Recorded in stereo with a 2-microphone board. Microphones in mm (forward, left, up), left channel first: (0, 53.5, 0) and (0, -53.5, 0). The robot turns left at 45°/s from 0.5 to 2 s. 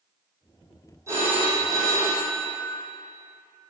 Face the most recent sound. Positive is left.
turn(degrees=165)